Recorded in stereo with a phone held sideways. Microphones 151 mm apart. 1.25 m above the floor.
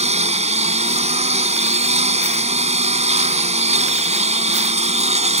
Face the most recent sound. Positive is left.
turn(degrees=-50)  # may be behind; listen again after turning